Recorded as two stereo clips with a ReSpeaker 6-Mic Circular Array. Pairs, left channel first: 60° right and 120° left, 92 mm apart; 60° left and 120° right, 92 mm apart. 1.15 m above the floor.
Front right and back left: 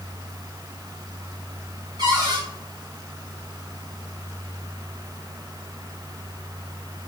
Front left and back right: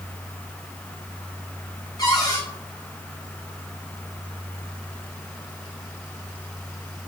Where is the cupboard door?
95° left, 1.8 m.